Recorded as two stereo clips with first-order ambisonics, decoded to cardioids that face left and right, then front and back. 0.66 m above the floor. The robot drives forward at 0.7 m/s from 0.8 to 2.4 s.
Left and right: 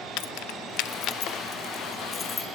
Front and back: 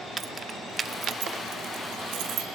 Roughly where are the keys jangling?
Left.